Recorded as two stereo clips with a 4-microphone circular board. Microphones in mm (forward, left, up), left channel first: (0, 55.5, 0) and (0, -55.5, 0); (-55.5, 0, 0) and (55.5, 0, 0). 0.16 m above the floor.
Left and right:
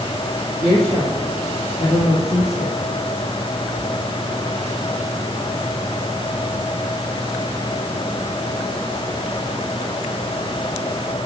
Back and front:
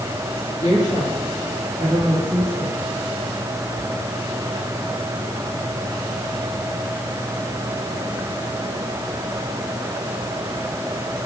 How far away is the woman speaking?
About 3.5 m.